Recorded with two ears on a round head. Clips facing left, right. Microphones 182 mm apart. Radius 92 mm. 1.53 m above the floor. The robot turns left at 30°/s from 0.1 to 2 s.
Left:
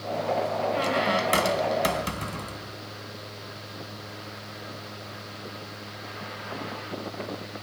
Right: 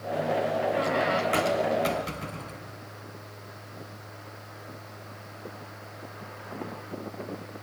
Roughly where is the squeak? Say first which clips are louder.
Even; behind left.